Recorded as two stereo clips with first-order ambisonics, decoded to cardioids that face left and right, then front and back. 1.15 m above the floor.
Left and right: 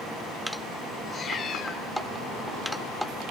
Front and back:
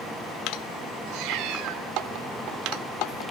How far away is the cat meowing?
About 2 m.